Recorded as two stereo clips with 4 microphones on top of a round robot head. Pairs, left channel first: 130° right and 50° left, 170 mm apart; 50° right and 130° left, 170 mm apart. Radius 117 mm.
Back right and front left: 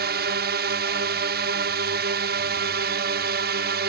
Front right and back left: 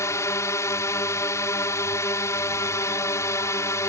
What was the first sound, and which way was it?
A drone, 25° left.